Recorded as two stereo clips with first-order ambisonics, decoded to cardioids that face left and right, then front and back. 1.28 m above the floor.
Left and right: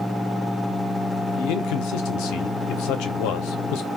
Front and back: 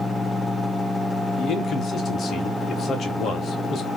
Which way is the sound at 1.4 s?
65° left.